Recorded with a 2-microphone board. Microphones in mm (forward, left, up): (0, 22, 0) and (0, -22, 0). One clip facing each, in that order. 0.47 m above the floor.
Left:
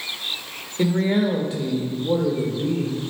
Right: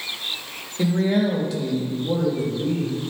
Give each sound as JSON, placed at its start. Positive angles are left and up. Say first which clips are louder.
{"t": 0.8, "sound": "a man speaking", "louder": "even", "side_deg": 30, "distance_m": 1.3}